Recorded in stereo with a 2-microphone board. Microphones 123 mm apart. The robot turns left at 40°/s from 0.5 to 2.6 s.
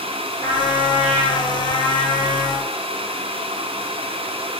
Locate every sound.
0.4 s a trumpet: 100° left, 1.4 m; by 2.7 s 20° left, 1.4 m